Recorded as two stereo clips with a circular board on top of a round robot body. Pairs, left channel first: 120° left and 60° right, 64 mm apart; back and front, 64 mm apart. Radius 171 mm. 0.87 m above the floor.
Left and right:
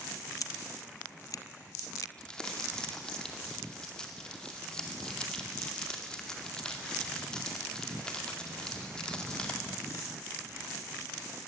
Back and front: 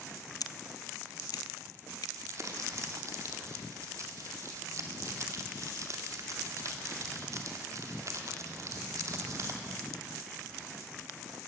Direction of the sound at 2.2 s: 45° left.